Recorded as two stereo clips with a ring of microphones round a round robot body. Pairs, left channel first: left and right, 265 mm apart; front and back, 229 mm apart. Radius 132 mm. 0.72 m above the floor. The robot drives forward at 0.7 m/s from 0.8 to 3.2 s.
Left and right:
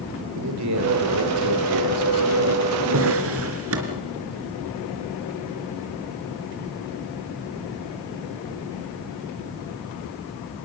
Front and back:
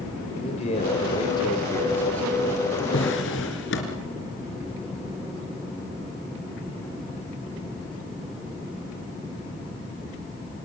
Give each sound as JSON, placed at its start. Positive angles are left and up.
{"t": 0.3, "sound": "a man speaking", "azimuth_deg": -65, "distance_m": 3.5}
{"t": 2.9, "sound": "a drawer", "azimuth_deg": -50, "distance_m": 4.0}